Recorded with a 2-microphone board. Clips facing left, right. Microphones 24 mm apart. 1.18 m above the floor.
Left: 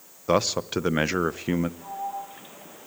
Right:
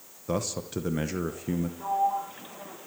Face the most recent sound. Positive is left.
turn(degrees=-40)  # may be behind; listen again after turning